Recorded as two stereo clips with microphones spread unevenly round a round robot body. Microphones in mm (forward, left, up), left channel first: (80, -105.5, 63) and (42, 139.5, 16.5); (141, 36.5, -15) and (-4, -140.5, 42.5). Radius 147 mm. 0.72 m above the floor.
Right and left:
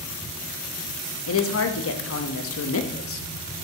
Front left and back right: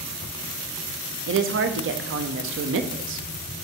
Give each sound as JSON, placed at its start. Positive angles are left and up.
{"t": 1.3, "sound": "a woman speaking", "azimuth_deg": -100, "distance_m": 0.8}